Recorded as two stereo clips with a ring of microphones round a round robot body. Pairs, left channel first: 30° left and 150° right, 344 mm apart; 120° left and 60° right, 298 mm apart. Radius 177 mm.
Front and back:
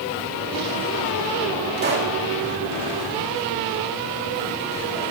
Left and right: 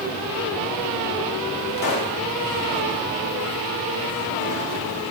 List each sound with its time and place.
1.8 s a pop: 150° left, 3 m